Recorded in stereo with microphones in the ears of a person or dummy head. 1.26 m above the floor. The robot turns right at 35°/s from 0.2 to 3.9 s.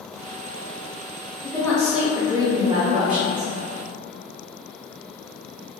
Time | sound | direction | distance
1.4 | a woman speaking | 170° left | 0.7 m